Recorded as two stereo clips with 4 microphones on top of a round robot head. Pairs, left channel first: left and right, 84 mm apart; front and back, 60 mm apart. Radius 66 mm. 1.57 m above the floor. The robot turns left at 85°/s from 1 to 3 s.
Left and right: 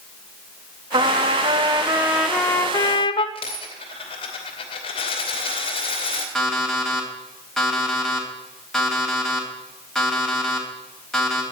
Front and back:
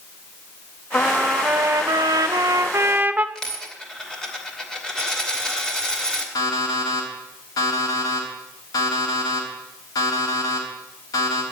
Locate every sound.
0.9 s a trumpet: 70° right, 0.8 m; by 3.2 s 120° left, 0.8 m
3.4 s a dropped coin: 80° left, 2.5 m
6.3 s an alarm clock: 5° left, 4 m